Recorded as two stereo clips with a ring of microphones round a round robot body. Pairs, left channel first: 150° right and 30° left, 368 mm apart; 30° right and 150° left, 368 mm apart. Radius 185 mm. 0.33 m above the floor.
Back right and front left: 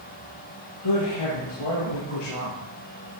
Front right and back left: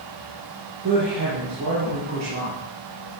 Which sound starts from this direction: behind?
A woman speaking, at 0.8 s.